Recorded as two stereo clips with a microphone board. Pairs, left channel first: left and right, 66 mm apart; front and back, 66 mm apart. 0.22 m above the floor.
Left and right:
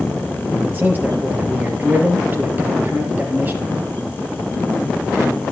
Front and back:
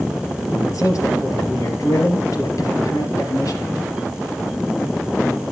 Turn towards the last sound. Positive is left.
turn(degrees=-30)